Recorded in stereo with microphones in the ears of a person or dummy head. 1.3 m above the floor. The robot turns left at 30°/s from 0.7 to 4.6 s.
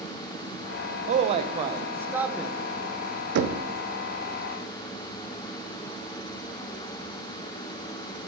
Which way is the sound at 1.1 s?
140° right.